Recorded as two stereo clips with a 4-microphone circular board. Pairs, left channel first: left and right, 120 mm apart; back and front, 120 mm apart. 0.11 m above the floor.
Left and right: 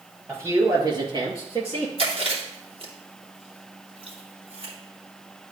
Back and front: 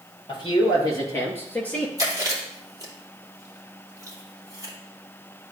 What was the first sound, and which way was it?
A man speaking, 150° right.